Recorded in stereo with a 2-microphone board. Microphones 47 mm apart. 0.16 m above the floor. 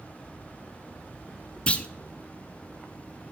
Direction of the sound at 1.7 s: 25° left (ahead or behind).